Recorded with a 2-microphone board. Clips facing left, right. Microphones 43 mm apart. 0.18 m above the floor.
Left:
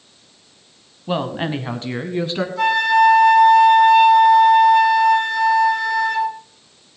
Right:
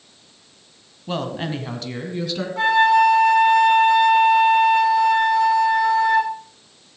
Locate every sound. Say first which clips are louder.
1.1 s a woman speaking: left 4 dB; 15° left (ahead or behind), 1.2 m; by 2.5 s 30° left (ahead or behind), 1.7 m
2.6 s a flute: even; 35° right (ahead or behind), 5.5 m